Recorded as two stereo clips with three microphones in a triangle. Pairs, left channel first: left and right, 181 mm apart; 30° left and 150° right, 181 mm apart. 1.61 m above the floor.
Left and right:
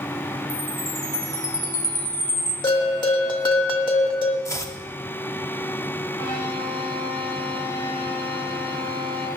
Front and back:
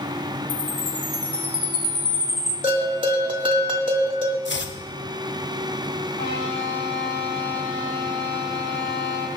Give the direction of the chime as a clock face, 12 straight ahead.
11 o'clock.